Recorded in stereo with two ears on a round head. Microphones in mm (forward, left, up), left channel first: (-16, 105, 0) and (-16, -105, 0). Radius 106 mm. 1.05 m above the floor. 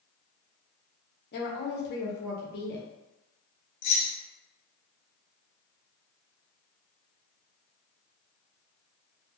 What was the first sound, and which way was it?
A woman speaking, 45° left (ahead or behind).